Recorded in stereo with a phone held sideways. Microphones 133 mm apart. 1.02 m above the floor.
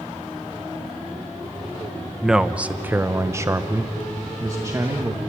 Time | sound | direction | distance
2.2 | a man speaking | 5° right (ahead or behind) | 0.9 m